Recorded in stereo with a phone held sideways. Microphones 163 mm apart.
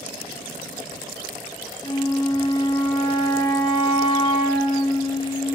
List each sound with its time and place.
1.8 s a flute: 30° left (ahead or behind), 0.5 m